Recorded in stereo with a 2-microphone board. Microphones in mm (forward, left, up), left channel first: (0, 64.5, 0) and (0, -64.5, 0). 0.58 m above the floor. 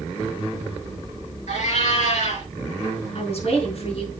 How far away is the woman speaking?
About 5.5 m.